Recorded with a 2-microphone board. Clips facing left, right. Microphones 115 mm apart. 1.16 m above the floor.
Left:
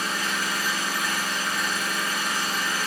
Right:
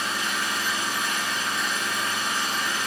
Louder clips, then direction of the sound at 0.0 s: Even; 30° right (ahead or behind).